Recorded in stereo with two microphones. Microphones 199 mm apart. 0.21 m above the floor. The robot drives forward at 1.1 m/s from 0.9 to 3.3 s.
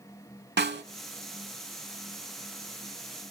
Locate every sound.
0.6 s a snare drum: 60° right (ahead or behind), 0.5 m